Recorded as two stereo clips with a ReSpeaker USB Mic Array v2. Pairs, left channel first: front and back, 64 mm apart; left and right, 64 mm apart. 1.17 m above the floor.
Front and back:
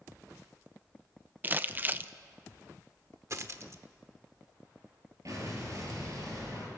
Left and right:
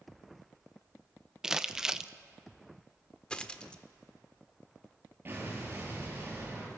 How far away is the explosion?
About 7 m.